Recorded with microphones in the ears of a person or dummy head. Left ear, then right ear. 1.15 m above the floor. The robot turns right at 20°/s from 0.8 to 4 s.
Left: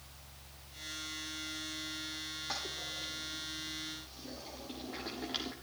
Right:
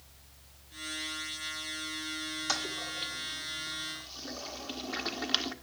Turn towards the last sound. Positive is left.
turn(degrees=-60)  # may be behind; listen again after turning